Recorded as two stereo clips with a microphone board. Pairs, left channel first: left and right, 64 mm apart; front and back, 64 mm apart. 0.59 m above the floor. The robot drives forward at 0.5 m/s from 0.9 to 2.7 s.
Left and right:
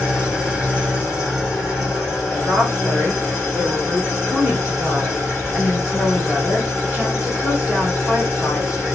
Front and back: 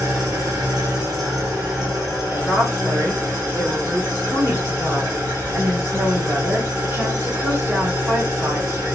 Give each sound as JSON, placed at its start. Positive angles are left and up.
{"t": 0.0, "sound": "an engine running", "azimuth_deg": -170, "distance_m": 1.4}
{"t": 2.3, "sound": "a woman speaking", "azimuth_deg": -145, "distance_m": 1.5}